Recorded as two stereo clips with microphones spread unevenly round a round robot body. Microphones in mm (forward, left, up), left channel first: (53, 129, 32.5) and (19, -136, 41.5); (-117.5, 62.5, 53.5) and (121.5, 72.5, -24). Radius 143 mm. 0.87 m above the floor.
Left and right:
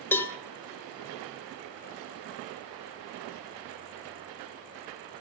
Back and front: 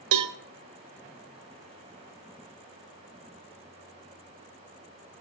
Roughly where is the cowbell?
Ahead.